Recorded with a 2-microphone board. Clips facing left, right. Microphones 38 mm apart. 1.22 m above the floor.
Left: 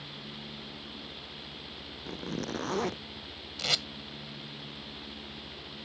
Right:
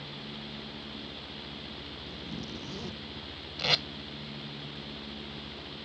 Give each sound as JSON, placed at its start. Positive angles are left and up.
{"t": 2.0, "sound": "a zipper", "side_deg": 55}
{"t": 3.6, "sound": "tape being pulled", "side_deg": -15}